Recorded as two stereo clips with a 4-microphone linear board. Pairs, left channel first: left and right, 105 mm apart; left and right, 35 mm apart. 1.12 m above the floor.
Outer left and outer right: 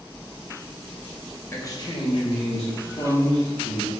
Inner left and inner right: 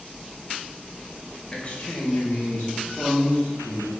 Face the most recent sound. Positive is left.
turn(degrees=75)  # may be behind; listen again after turning